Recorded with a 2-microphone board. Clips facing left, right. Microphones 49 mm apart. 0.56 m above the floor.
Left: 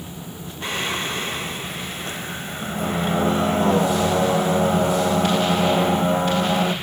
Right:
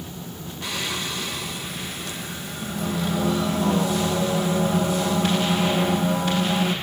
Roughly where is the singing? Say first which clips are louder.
Left 4 dB; left.